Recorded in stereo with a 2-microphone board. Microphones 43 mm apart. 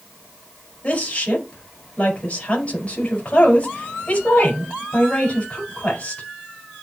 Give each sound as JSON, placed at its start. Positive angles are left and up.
{"t": 0.8, "sound": "a woman speaking", "side_deg": 30, "distance_m": 4.5}